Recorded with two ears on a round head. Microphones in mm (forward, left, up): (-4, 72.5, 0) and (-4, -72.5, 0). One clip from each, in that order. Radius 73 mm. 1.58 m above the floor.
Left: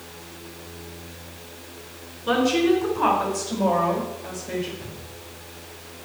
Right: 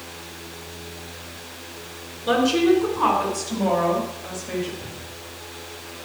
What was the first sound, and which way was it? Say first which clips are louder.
A woman speaking: right 2 dB; 5° right (ahead or behind).